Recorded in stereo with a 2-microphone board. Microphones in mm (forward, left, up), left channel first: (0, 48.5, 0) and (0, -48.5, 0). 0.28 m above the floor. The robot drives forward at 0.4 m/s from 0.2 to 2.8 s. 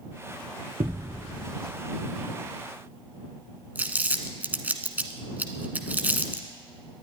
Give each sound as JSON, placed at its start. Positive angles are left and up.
{"t": 0.8, "sound": "a thud", "side_deg": -85, "distance_m": 1.9}
{"t": 3.8, "sound": "crumpling", "side_deg": -15, "distance_m": 1.1}